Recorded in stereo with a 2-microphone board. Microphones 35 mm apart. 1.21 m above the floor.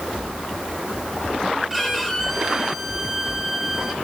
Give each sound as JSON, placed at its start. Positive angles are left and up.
{"t": 1.7, "sound": "a violin", "side_deg": -5, "distance_m": 3.0}